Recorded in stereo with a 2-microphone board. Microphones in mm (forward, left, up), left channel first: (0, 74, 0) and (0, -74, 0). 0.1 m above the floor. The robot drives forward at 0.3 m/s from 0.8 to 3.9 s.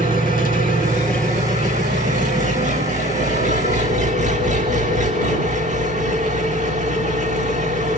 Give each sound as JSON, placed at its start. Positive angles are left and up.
{"t": 0.0, "sound": "an engine running", "side_deg": -65, "distance_m": 4.0}